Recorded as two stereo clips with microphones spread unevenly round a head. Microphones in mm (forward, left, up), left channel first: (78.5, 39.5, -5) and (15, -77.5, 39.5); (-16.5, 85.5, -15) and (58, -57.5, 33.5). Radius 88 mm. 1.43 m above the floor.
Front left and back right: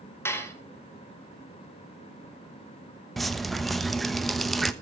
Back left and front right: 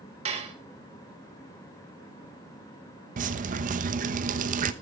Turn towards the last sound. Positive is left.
turn(degrees=-35)